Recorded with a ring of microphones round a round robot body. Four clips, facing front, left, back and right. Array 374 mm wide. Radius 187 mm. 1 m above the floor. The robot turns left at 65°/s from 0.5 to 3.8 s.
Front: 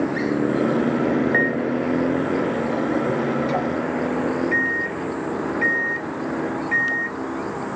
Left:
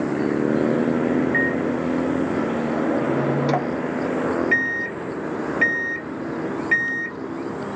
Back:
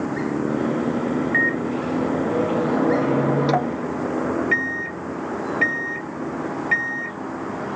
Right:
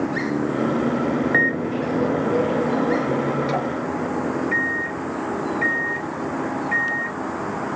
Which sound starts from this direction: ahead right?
A microwave, at 1.3 s.